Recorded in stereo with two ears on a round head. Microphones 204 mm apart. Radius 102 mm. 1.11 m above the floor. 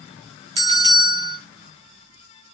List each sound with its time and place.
0.6 s a bell: 20° right (ahead or behind), 0.9 m